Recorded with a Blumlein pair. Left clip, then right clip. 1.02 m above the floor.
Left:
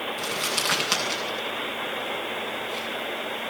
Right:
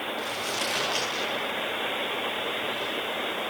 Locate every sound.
0.2 s crumpling: 45° left, 8 m